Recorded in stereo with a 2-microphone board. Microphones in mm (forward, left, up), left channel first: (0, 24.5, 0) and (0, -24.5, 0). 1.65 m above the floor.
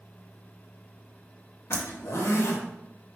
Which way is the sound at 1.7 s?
60° left (ahead or behind).